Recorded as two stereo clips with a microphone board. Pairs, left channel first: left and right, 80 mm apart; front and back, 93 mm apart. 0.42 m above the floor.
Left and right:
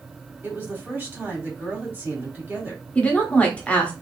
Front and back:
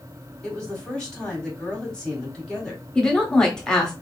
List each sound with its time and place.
0.4 s a woman speaking: 70° right, 1.2 m
3.0 s a woman speaking: 70° left, 0.9 m